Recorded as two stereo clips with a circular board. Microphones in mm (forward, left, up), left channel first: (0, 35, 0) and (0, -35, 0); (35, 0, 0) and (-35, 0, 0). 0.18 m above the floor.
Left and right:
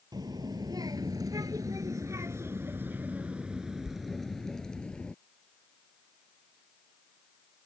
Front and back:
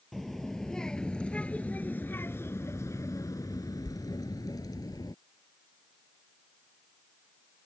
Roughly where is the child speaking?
Right.